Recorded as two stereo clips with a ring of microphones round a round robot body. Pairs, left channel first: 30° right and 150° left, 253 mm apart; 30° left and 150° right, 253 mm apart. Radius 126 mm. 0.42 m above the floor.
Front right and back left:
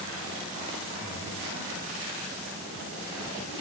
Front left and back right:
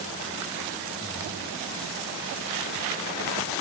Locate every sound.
1.0 s breathing: 30° right, 2.5 m